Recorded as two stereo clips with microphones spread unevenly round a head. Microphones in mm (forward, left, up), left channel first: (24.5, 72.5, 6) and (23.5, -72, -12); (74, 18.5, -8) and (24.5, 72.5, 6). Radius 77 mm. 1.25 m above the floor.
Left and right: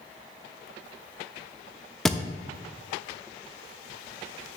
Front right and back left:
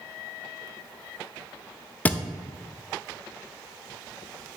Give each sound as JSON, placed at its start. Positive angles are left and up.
{"t": 2.0, "sound": "a thud", "azimuth_deg": 20, "distance_m": 0.5}